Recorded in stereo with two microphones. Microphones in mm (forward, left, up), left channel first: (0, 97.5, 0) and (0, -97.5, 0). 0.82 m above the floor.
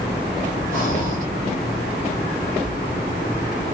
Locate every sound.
0.7 s breathing: 45° left (ahead or behind), 2 m